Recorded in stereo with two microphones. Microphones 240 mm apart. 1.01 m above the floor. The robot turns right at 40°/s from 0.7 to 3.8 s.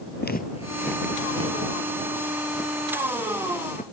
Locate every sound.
0.2 s footsteps: 45° left (ahead or behind); by 3.8 s 30° left (ahead or behind)